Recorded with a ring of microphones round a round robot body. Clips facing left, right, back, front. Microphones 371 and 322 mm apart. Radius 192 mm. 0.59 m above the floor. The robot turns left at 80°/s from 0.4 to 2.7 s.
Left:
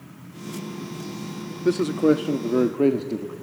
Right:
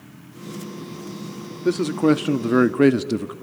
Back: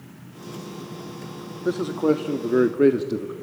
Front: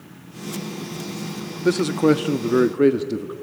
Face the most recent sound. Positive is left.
turn(degrees=-80)